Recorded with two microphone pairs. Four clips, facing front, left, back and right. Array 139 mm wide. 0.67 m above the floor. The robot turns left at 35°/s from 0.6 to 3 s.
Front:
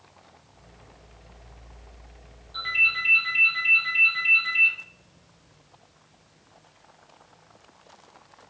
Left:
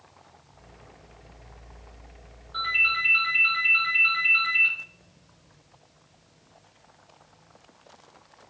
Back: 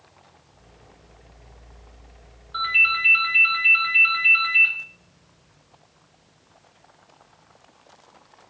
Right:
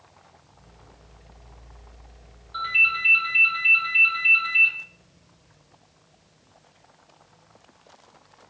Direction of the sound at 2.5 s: 170° right.